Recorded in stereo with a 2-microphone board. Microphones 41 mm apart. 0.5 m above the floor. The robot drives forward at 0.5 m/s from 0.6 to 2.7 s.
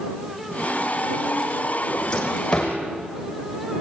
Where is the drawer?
15° left (ahead or behind), 5.5 m.